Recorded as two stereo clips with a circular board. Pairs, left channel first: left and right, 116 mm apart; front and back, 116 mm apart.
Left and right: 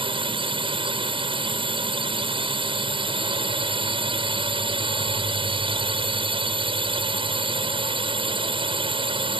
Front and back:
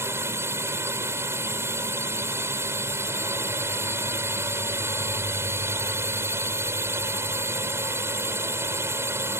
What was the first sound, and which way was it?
A drone, 115° right.